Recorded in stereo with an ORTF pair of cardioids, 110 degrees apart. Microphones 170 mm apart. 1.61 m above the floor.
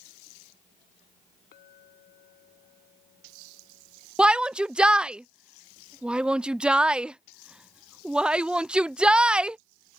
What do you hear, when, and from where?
1.5 s a clink: 60° left
4.2 s a shout: 5° right